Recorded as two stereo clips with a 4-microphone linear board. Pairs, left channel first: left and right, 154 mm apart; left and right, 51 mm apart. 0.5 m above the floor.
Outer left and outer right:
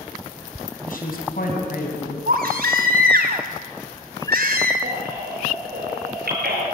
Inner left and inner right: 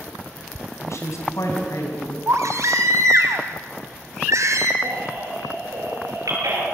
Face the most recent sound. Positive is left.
turn(degrees=-85)